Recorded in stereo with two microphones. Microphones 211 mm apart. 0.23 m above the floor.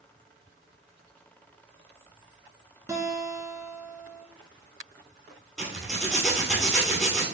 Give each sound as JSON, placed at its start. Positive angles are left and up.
{"t": 2.9, "sound": "a guitar", "side_deg": -15, "distance_m": 1.0}
{"t": 5.6, "sound": "a zipper", "side_deg": 0, "distance_m": 1.6}